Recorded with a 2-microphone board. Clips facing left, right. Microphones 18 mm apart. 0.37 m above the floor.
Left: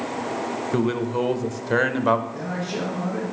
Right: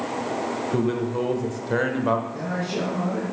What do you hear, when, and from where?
0.7 s a man speaking: 20° left (ahead or behind), 0.9 m
2.3 s a man speaking: centre (ahead or behind), 3.5 m